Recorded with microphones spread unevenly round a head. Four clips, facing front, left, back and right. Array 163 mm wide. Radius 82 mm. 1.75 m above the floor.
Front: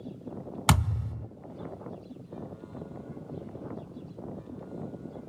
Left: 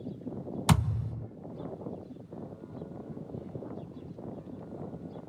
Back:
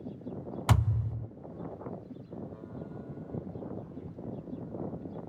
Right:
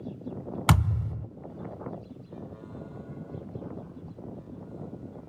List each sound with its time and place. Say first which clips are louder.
0.7 s a thud: right 2 dB, front 4 dB; 45° right, 2.5 m